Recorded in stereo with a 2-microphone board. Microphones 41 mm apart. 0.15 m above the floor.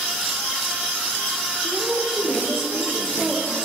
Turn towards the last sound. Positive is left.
turn(degrees=-30)  # may be behind; listen again after turning